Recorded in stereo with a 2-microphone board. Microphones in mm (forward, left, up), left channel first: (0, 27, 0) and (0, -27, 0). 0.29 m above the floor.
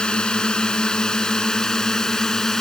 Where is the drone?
15° left (ahead or behind); by 2.6 s 10° left (ahead or behind).